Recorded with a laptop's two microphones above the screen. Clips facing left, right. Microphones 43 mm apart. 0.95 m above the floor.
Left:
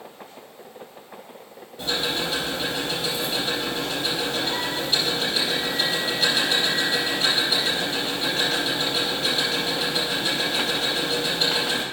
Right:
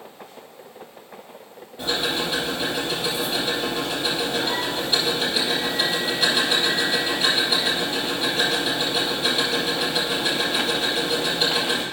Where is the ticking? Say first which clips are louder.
Right 1 dB; 15° right (ahead or behind), 3.5 m.